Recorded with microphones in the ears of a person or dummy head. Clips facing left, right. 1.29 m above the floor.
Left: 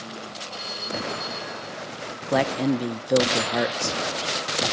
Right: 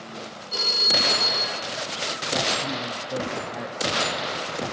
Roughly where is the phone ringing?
Right.